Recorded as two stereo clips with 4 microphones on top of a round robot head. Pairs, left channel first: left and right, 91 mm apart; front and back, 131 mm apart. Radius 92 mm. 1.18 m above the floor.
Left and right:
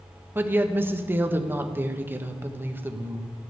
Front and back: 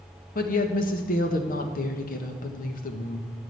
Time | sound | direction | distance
0.3 | a woman speaking | 20° right | 1.4 m